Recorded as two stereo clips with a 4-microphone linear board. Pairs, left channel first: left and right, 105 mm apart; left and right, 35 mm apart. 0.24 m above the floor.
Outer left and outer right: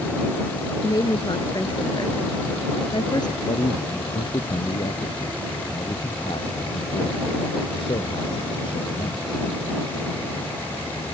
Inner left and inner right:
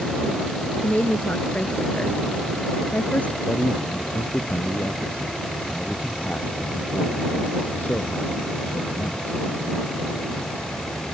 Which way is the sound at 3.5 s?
55° left (ahead or behind).